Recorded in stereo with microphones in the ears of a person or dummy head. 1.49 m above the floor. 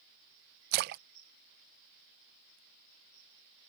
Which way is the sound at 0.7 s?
45° right (ahead or behind).